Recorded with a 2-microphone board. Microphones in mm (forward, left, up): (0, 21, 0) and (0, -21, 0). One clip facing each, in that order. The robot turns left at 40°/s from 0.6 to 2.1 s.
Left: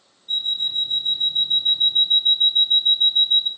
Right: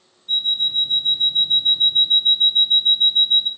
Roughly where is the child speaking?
No child speaking in this recording.